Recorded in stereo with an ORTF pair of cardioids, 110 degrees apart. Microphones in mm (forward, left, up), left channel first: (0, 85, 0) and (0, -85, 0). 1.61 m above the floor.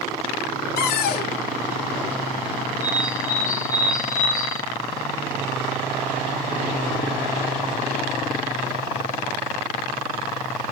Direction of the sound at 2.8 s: 20° left.